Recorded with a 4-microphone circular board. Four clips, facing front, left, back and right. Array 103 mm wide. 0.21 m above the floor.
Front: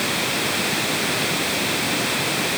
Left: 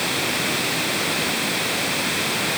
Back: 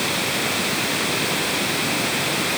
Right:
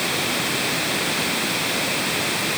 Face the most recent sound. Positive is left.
No sound to turn to.